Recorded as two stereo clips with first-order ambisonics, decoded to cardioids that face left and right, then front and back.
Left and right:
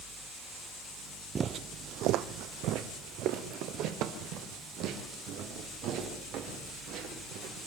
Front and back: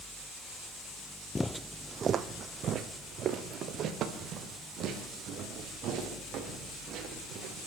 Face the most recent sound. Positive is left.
turn(degrees=-130)